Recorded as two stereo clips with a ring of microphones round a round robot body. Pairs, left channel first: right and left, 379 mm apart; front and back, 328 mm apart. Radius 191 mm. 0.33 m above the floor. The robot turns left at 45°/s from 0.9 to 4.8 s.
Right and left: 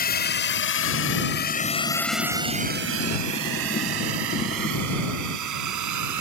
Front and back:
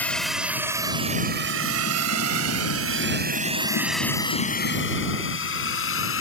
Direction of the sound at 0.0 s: 80° right.